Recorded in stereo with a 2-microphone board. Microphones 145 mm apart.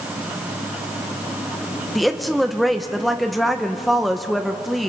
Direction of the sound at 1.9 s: Centre (ahead or behind).